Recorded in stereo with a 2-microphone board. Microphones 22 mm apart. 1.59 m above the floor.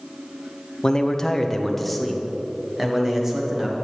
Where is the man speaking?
30° left (ahead or behind), 0.8 m; by 3.8 s 20° right (ahead or behind), 1.8 m.